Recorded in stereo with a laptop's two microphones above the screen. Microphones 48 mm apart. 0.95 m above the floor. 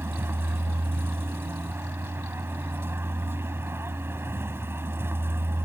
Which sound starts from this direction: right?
A vehicle, at 0.0 s.